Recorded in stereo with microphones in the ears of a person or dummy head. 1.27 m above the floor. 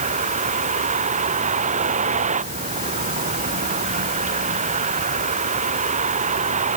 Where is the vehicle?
40° right (ahead or behind).